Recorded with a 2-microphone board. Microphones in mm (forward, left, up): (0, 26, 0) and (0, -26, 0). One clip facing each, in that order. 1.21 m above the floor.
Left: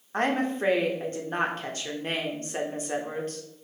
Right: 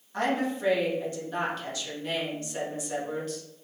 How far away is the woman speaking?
About 0.6 m.